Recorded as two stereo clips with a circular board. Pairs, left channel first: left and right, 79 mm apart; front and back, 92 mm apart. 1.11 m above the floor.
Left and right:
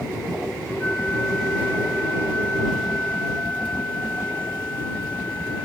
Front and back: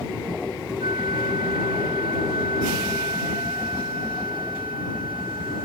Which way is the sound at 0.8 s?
160° left.